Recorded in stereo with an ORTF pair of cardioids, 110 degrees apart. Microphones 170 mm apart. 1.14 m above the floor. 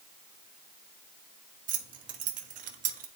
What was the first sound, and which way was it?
Keys jangling, 50° right.